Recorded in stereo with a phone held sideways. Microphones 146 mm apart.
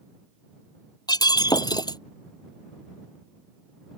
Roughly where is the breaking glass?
Left.